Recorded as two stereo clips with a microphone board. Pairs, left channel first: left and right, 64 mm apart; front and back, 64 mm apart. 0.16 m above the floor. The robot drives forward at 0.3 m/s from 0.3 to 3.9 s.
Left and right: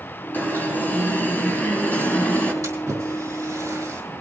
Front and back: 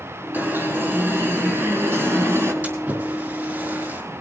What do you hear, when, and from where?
0.3 s an alarm: 140° left, 3 m; by 2.5 s 150° left, 3 m
2.6 s a splash: 125° right, 4.5 m; by 4.0 s 130° right, 5 m